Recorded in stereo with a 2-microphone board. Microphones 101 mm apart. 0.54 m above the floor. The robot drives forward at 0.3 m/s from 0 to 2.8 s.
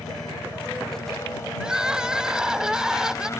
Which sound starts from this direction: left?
A helicopter, at 0.0 s.